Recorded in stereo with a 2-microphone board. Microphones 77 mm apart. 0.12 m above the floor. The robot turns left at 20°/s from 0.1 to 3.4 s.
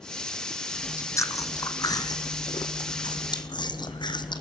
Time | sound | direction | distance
0.7 | chewing | 145° left | 1.5 m